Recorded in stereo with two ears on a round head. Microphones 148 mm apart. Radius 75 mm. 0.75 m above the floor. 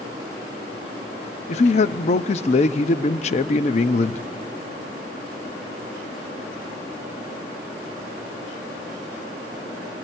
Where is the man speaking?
45° left (ahead or behind), 0.7 m.